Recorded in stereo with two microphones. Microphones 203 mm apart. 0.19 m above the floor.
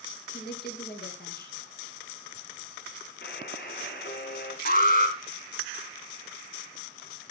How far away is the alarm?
About 2.5 m.